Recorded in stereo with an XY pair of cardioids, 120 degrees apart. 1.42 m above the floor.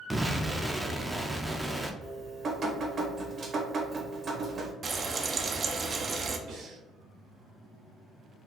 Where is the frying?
35° right, 0.5 m.